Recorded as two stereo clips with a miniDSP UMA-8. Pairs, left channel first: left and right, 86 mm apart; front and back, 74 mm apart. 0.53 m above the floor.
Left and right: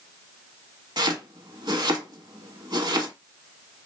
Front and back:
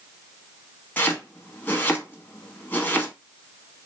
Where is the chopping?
65° right, 0.7 m.